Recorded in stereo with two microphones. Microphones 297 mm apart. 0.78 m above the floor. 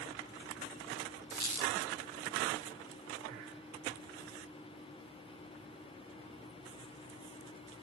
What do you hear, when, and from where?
1.3 s a squeak: 75° right (ahead or behind), 1.3 m